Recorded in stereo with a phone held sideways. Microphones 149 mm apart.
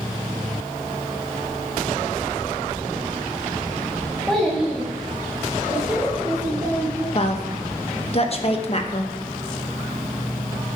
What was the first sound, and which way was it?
A child speaking, 5° left (ahead or behind).